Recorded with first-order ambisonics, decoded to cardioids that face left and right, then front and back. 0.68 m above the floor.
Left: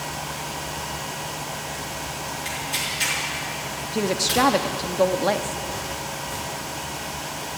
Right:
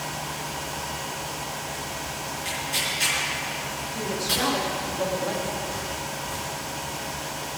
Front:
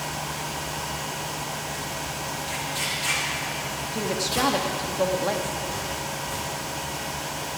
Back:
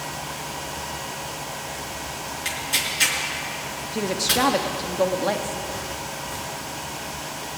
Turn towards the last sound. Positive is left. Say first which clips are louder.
# left 6 dB, back 4 dB
turn(degrees=105)